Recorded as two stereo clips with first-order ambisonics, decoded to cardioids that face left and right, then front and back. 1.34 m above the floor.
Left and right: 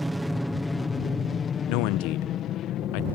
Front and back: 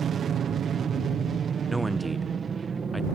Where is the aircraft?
160° right; by 3.1 s 110° left.